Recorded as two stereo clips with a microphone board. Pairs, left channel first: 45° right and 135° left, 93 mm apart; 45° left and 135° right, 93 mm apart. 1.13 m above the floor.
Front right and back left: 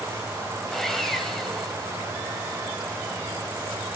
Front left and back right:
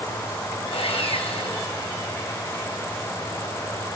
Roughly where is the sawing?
Ahead left.